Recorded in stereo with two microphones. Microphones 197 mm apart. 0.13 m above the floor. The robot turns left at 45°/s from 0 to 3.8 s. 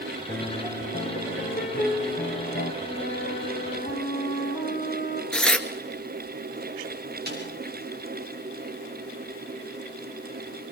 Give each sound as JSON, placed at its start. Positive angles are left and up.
{"t": 0.3, "sound": "a piano", "azimuth_deg": 175, "distance_m": 2.5}
{"t": 2.8, "sound": "a flute", "azimuth_deg": 85, "distance_m": 4.0}
{"t": 5.3, "sound": "tearing paper", "side_deg": 5, "distance_m": 1.8}
{"t": 7.3, "sound": "a snare drum", "side_deg": -55, "distance_m": 9.0}